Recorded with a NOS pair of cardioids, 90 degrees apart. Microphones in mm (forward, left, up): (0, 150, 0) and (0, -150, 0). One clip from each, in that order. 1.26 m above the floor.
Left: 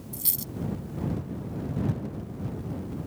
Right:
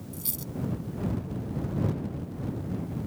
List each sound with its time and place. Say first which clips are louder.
0.1 s a dropped coin: left 4 dB; 40° left